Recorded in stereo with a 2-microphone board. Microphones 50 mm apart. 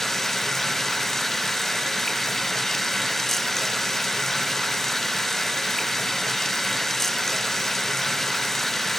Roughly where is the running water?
Centre.